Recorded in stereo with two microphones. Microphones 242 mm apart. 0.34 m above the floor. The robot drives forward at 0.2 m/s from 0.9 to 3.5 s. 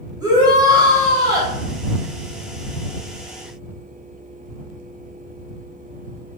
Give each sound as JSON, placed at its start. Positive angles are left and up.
{"t": 0.2, "sound": "a shout", "side_deg": -15, "distance_m": 1.3}